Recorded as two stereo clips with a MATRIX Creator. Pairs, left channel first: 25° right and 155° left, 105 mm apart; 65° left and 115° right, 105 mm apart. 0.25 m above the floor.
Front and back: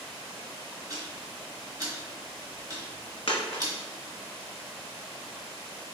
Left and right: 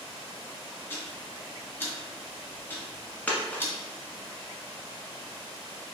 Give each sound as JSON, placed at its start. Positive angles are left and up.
{"t": 0.9, "sound": "ticking", "azimuth_deg": 125, "distance_m": 1.4}
{"t": 3.3, "sound": "a dropped coin", "azimuth_deg": -5, "distance_m": 1.0}